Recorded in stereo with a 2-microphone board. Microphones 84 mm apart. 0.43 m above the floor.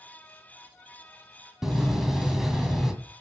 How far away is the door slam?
About 1.9 m.